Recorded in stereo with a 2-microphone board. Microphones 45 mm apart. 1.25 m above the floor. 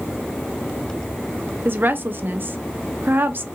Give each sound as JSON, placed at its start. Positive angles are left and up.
{"t": 1.6, "sound": "a woman speaking", "side_deg": -50, "distance_m": 0.5}